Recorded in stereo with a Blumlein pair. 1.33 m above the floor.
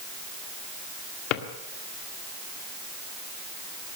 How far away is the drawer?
About 1.8 m.